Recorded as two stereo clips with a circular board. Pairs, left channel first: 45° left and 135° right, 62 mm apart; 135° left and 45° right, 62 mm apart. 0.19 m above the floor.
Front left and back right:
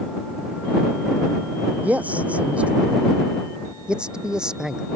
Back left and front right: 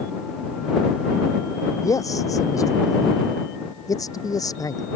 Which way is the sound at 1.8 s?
160° left.